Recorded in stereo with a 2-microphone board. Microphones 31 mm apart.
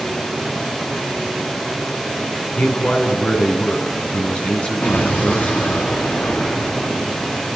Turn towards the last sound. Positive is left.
turn(degrees=55)  # may be behind; listen again after turning